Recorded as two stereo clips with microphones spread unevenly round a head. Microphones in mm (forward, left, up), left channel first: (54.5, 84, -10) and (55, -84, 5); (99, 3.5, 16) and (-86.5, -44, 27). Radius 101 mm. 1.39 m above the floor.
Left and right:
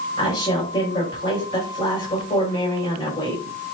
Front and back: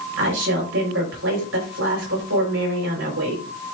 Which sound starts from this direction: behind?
A woman speaking, at 0.2 s.